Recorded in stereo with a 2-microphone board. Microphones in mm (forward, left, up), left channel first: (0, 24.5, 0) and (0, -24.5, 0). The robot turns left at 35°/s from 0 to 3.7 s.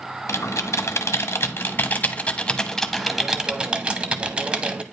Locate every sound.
0.3 s typing on a keyboard: 95° left, 0.5 m; by 4.8 s 25° right, 0.5 m